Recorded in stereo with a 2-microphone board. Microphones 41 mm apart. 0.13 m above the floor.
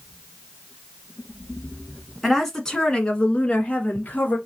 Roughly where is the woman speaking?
Centre.